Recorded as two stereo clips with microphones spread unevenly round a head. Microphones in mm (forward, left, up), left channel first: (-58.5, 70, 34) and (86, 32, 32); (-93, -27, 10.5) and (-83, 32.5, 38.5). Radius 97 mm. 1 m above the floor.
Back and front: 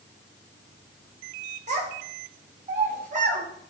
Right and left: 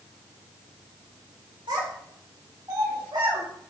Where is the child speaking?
25° left, 3.5 m; by 3.4 s 20° left, 5 m.